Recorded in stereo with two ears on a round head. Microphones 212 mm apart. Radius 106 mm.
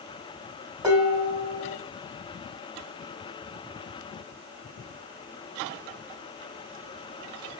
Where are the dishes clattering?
15° right (ahead or behind), 2.5 m.